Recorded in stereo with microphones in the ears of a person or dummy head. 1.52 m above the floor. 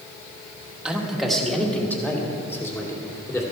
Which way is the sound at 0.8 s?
5° right (ahead or behind).